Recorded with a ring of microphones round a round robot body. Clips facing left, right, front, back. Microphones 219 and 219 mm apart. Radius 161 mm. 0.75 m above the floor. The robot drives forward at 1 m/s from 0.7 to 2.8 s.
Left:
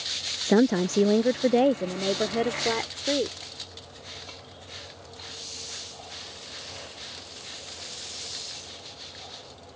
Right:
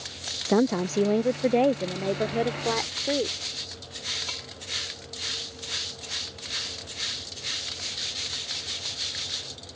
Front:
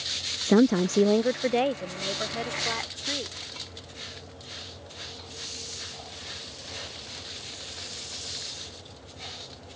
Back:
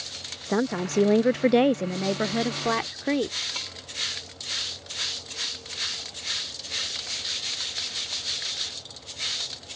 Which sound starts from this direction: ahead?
A woman speaking, at 0.5 s.